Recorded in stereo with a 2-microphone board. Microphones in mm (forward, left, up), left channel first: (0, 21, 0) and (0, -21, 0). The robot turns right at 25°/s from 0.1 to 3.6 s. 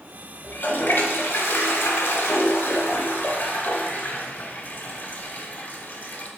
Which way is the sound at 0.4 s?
50° left.